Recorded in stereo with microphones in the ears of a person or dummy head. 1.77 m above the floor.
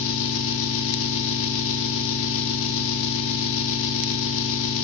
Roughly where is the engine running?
Left.